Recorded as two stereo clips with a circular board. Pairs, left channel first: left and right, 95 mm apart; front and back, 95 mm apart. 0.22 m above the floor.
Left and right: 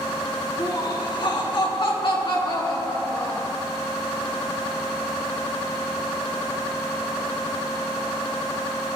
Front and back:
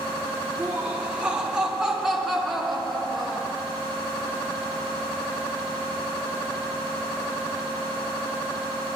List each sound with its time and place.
0.6 s laughter: 110° left, 2.5 m; by 3.5 s 85° left, 3.5 m